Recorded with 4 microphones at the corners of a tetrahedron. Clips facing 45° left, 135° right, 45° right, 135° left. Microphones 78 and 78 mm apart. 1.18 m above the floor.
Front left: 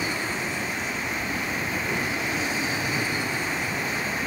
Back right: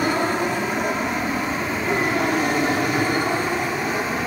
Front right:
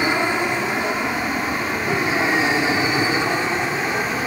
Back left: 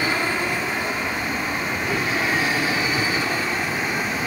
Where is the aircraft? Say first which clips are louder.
Back right 8 dB, front right 3 dB; 115° right; by 4.3 s 110° right.